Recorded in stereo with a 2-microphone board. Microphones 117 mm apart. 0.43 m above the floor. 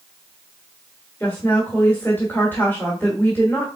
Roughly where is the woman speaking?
Centre.